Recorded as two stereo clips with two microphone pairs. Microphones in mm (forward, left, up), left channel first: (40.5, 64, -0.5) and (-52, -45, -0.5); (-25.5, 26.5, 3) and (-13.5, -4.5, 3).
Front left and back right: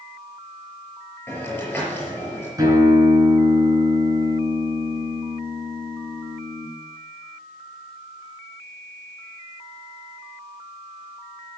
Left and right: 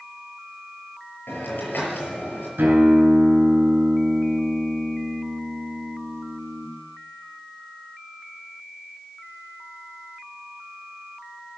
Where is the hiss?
130° left, 5.5 m.